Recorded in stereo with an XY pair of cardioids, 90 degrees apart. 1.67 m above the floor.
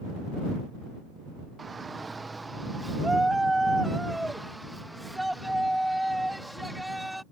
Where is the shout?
35° right; by 7.2 s straight ahead.